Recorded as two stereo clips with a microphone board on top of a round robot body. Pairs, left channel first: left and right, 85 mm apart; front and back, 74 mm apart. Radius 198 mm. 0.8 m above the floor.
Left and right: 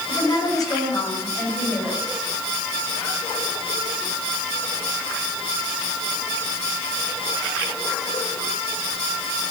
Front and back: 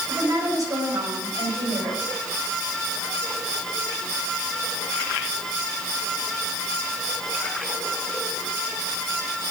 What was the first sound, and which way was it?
A woman speaking, 135° left.